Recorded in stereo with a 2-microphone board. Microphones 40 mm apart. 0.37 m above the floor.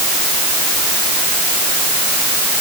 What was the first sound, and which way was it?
Only background noise.